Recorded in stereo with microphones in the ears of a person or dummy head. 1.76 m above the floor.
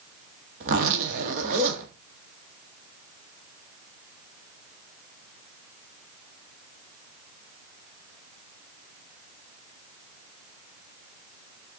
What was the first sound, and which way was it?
A zipper, 50° right (ahead or behind).